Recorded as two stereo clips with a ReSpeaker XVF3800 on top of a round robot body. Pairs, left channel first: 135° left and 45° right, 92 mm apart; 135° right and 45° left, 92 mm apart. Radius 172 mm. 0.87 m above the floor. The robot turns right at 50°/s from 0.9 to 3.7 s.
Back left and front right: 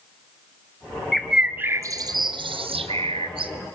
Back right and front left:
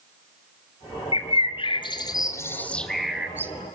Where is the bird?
140° right, 1.0 m; by 3.5 s 20° right, 1.0 m.